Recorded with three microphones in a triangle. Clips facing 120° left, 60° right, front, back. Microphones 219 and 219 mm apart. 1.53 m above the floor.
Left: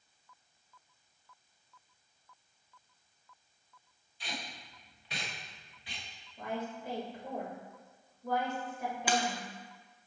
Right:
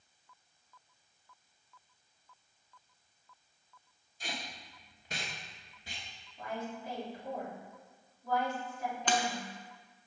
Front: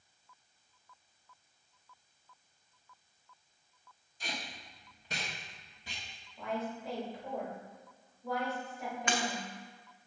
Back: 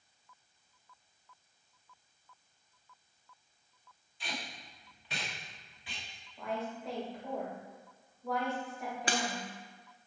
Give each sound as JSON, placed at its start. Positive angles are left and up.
{"t": 4.2, "sound": "tape being pulled", "azimuth_deg": -30, "distance_m": 1.1}
{"t": 6.4, "sound": "a woman speaking", "azimuth_deg": 90, "distance_m": 2.5}
{"t": 9.1, "sound": "breaking glass", "azimuth_deg": -165, "distance_m": 0.7}